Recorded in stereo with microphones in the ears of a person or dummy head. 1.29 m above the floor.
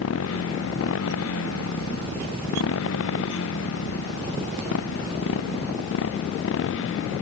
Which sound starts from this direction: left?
A motorcycle, at 0.0 s.